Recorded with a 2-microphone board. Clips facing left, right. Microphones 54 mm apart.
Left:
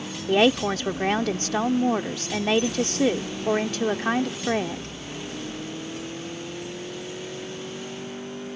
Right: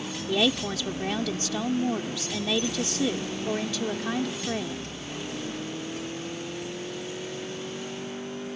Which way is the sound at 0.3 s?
45° left (ahead or behind).